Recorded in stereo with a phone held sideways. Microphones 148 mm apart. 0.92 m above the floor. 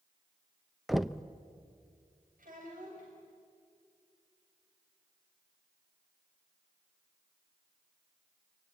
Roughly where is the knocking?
Centre.